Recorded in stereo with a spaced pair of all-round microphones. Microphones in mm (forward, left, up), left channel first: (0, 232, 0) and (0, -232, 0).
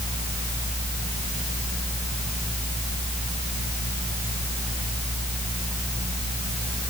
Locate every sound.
Only background noise.